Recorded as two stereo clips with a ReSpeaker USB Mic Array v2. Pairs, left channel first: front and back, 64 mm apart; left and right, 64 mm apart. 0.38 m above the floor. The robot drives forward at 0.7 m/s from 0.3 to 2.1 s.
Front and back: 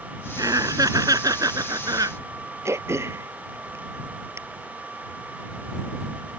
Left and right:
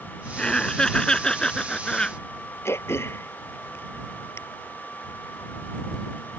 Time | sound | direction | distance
0.4 | laughter | 165° left | ?
2.6 | throat clearing | 135° left | ?